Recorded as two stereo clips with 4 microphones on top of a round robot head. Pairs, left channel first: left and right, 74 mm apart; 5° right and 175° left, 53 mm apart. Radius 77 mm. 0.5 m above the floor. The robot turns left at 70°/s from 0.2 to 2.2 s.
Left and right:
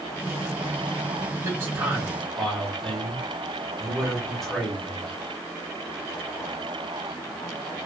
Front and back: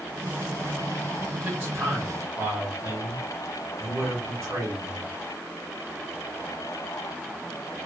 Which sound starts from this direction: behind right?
A man speaking, at 1.4 s.